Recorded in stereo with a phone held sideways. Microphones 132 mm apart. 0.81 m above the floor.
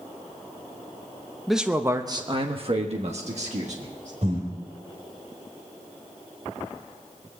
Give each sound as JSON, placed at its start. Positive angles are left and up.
{"t": 1.5, "sound": "a man speaking", "side_deg": 0, "distance_m": 0.8}
{"t": 4.2, "sound": "breathing", "side_deg": -60, "distance_m": 3.5}